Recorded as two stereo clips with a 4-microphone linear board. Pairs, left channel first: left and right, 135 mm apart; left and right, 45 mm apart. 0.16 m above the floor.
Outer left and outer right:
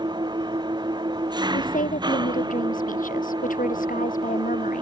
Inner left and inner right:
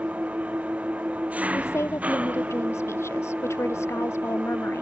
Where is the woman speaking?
85° left.